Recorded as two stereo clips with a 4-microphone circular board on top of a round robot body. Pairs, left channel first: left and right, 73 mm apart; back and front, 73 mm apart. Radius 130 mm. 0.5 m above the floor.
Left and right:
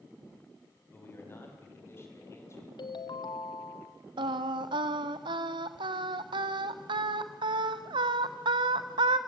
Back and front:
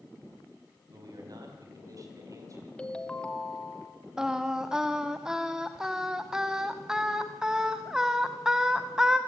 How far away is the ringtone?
About 1.2 m.